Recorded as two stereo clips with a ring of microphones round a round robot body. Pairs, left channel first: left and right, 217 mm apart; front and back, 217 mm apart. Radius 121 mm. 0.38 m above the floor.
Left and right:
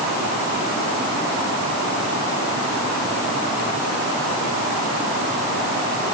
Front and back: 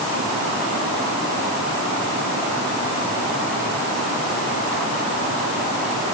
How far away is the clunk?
I don't hear a clunk.